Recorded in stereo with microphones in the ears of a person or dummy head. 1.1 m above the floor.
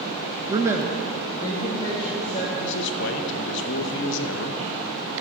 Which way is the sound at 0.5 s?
25° right (ahead or behind).